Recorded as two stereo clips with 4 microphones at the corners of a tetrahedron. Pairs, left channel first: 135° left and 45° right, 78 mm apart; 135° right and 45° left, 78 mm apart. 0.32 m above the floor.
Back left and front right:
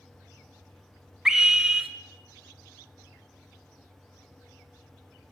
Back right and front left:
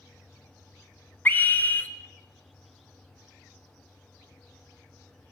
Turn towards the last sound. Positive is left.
turn(degrees=-115)